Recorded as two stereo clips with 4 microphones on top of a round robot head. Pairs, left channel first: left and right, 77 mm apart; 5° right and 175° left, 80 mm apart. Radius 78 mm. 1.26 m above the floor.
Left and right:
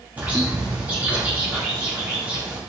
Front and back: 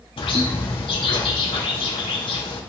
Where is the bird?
15° right, 3 m.